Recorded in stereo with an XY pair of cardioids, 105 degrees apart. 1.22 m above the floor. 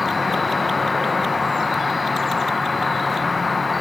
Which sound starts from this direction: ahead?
An insect, at 0.0 s.